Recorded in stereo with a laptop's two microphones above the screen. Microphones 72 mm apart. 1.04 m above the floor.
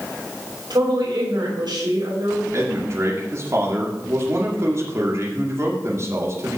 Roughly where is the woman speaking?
Right.